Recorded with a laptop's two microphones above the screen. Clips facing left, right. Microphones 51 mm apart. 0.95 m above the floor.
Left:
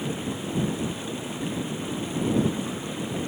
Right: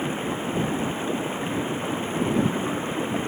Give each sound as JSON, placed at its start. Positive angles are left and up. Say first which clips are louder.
{"t": 0.0, "sound": "running water", "louder": "right 3 dB", "side_deg": -30}